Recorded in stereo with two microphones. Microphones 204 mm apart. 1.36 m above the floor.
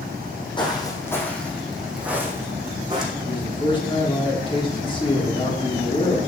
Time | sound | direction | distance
0.6 | footsteps | 25° left (ahead or behind) | 3.5 m
3.2 | a man speaking | 25° left (ahead or behind) | 3.5 m